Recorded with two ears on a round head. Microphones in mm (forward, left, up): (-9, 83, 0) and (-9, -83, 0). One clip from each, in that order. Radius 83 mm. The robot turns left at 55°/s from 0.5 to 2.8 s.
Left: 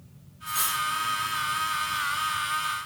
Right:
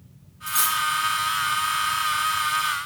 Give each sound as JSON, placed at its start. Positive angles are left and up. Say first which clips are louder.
{"t": 0.5, "sound": "cutlery clinking", "louder": "right 4 dB", "side_deg": -35, "distance_m": 0.9}